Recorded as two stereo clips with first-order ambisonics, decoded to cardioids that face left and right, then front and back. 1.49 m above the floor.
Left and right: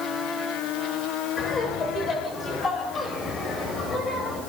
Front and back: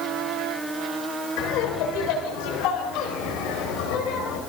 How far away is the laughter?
About 6.5 m.